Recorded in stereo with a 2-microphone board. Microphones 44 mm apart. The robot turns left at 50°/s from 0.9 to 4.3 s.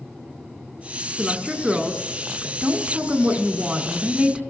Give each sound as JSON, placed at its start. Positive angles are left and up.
{"t": 1.2, "sound": "a woman speaking", "azimuth_deg": 15, "distance_m": 1.3}